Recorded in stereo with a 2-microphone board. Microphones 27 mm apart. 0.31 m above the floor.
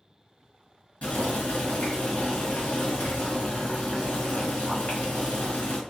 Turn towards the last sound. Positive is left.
turn(degrees=55)  # may be behind; listen again after turning